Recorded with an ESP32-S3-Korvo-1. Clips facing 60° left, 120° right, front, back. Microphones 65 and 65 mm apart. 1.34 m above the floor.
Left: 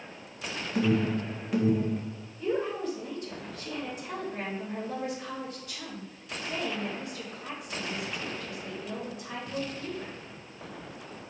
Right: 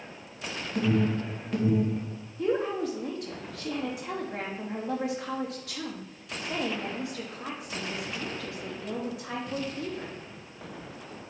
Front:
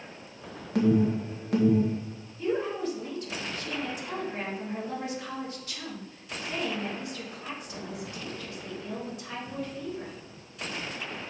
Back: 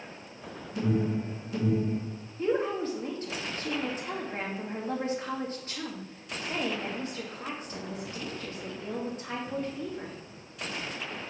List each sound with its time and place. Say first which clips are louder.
0.8 s an alarm: even, front 5 dB; 25° right, 1.7 m
2.4 s a woman speaking: right 2 dB, back 1 dB; 125° right, 2 m